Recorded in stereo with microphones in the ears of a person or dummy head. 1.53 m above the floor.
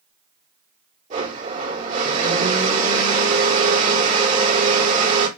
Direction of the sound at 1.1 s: 45° right (ahead or behind).